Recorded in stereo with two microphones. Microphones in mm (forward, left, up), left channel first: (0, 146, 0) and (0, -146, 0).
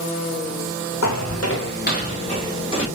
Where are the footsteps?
75° left (ahead or behind), 0.8 m; by 2.9 s 15° left (ahead or behind), 3 m.